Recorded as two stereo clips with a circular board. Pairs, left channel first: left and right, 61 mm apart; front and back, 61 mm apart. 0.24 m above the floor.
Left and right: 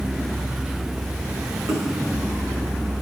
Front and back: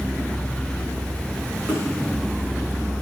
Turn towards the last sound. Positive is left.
turn(degrees=-115)